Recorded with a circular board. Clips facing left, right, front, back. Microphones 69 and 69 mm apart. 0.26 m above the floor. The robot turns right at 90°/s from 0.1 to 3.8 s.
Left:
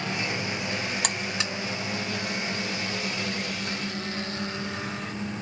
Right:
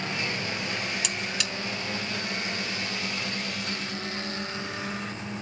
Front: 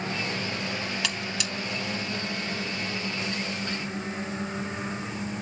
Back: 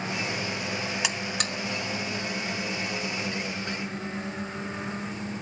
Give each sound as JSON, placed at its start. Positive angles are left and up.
{"t": 1.0, "sound": "a buzzer", "azimuth_deg": 115, "distance_m": 1.0}